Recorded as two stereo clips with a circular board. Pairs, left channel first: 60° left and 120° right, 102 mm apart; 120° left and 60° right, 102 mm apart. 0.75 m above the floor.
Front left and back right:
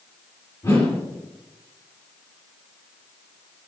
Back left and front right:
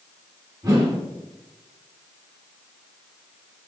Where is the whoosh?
5° right, 3.5 m.